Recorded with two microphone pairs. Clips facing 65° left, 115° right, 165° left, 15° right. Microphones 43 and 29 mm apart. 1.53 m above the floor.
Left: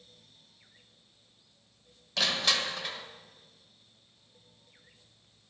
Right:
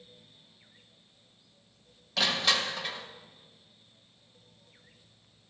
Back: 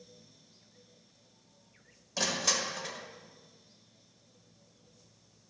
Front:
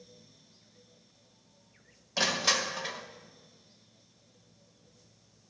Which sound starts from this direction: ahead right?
Crushing, at 2.2 s.